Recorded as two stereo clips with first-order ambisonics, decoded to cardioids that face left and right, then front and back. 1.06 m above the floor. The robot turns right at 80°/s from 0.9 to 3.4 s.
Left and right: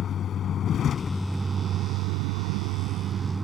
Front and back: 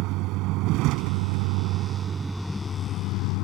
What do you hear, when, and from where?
0.0 s a vehicle: 150° left; by 3.5 s 10° right